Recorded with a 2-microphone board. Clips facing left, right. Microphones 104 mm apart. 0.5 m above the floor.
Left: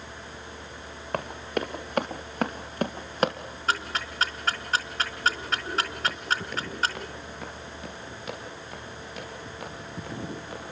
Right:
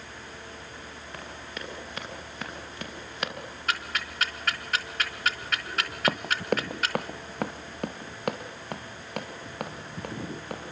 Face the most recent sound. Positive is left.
turn(degrees=-60)  # may be behind; listen again after turning